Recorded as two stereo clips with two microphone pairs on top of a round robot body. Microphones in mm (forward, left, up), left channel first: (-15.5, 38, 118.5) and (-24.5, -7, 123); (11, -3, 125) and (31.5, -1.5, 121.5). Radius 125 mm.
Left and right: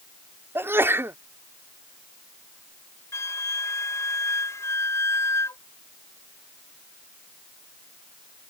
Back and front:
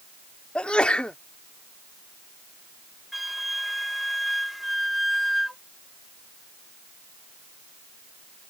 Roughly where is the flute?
Left.